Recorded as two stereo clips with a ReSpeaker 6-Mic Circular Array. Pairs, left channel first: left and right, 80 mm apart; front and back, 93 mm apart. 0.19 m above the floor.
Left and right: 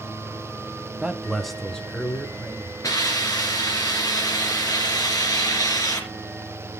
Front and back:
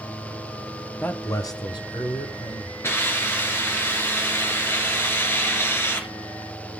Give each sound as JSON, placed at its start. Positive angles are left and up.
{"t": 1.0, "sound": "a man speaking", "azimuth_deg": -35, "distance_m": 1.1}
{"t": 2.8, "sound": "a hiss", "azimuth_deg": 60, "distance_m": 3.5}